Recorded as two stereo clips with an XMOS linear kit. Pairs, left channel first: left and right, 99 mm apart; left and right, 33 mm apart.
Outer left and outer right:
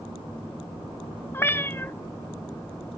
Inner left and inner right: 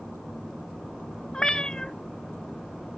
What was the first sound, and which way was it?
A cat meowing, 25° left (ahead or behind).